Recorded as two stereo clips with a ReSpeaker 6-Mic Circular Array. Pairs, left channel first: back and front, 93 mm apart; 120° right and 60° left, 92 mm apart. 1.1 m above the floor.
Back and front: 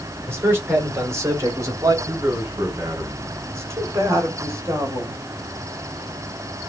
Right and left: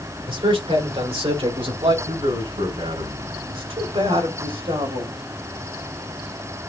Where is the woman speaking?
60° left, 4 m.